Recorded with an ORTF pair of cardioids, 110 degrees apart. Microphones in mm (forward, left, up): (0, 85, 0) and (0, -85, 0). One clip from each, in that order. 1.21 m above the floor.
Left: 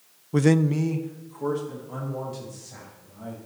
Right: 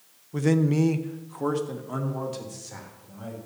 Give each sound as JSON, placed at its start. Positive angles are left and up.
{"t": 0.3, "sound": "a man speaking", "azimuth_deg": 45, "distance_m": 0.5}